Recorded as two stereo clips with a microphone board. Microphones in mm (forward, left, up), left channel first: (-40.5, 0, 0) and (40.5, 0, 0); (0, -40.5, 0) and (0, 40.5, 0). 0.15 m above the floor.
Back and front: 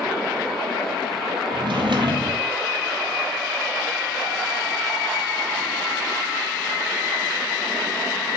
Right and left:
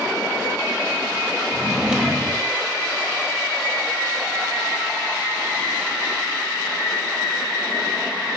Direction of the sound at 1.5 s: 10° left.